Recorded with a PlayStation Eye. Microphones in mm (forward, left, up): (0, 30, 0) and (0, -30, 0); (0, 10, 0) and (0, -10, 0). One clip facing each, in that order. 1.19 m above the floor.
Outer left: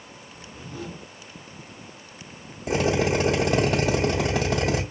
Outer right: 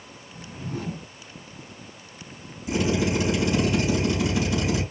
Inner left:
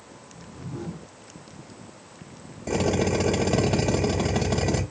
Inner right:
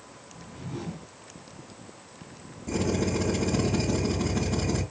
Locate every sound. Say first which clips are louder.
0.3 s a whoosh: outer right 5 dB, inner left 1 dB; 55° right (ahead or behind), 2 m
2.7 s a drill: outer left 2 dB, inner left 4 dB; 80° left, 3.5 m